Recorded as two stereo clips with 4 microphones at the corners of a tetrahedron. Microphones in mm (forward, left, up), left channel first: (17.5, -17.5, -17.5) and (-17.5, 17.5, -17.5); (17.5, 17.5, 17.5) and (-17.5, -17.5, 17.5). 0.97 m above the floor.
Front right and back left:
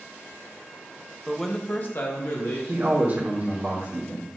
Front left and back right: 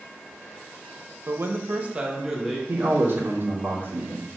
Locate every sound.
1.3 s a man speaking: 145° right, 0.9 m; by 2.6 s 55° right, 1.6 m
2.7 s a man speaking: 175° right, 2.5 m